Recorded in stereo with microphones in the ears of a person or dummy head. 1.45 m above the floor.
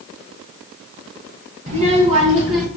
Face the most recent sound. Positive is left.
turn(degrees=-30)  # may be behind; listen again after turning